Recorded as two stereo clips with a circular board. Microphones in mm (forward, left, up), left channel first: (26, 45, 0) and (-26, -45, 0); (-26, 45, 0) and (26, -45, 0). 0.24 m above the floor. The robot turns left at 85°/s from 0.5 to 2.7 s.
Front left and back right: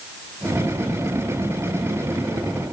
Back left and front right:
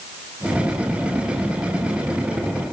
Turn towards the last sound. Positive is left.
No sound to turn to.